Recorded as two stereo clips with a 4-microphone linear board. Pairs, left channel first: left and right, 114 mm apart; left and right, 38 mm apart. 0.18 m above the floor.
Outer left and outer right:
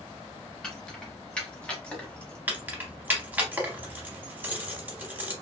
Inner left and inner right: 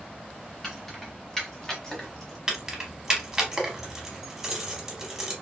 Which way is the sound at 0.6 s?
5° left (ahead or behind).